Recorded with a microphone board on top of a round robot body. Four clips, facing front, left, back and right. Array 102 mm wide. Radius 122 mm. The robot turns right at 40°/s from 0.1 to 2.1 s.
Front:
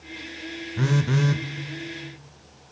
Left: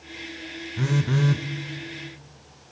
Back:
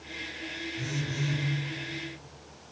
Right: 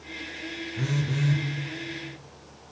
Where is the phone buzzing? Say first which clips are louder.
Left 5 dB, front 12 dB; 15° left, 0.8 m; by 1.4 s 40° left, 0.8 m.